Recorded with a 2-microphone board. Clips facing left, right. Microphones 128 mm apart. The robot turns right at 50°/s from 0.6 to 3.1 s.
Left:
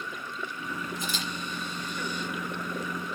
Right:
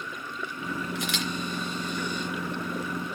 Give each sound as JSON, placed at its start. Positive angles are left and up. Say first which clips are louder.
{"t": 0.9, "sound": "a camera shutter", "louder": "right 3 dB", "side_deg": -80, "distance_m": 3.0}